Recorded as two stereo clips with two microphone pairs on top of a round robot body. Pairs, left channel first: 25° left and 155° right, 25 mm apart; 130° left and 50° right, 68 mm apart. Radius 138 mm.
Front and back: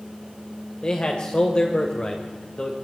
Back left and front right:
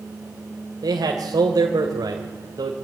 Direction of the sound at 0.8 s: 25° right.